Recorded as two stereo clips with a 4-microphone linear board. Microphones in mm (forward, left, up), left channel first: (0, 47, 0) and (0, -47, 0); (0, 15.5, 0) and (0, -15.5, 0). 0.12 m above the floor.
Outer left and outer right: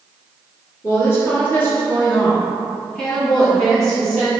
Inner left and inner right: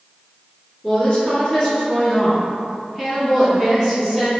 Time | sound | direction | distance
0.8 | a woman speaking | 30° left (ahead or behind) | 1.5 m